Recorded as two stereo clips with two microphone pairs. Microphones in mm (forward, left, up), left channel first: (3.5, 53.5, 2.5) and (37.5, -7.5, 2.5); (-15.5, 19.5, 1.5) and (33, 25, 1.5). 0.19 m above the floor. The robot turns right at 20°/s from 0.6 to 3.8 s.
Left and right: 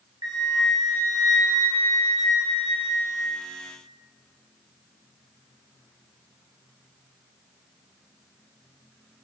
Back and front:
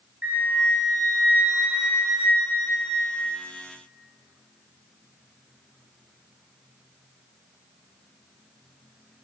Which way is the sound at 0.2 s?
40° right.